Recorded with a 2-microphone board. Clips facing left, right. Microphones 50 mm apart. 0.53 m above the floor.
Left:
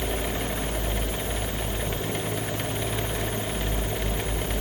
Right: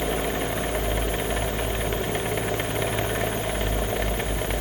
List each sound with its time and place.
Only background noise.